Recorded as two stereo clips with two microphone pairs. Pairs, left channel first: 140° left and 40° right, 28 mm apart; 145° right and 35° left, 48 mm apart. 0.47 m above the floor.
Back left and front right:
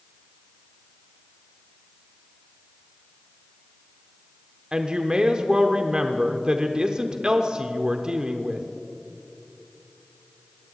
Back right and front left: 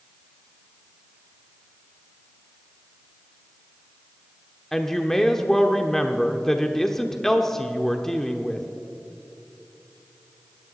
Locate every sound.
4.7 s a woman speaking: 70° right, 0.9 m